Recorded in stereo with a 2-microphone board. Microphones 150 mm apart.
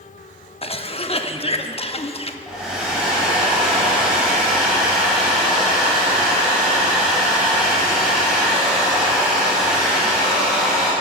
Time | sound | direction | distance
0.6 | a cough | 40° left (ahead or behind) | 0.8 m
2.5 | a hair dryer | 5° right (ahead or behind) | 4 m